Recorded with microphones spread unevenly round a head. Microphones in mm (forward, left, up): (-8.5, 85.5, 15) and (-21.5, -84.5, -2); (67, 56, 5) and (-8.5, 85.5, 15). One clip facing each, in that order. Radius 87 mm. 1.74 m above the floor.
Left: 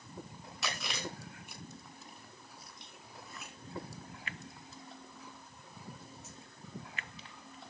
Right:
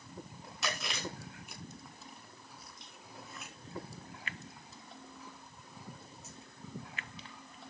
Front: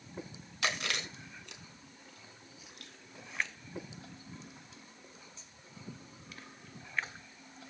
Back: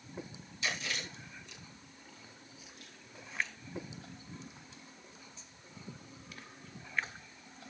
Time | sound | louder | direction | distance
0.6 | chewing | right 1 dB, front 3 dB | 5° right | 4 m